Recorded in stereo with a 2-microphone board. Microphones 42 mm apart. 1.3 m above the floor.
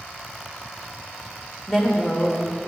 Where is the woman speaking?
10° left (ahead or behind), 1.2 m.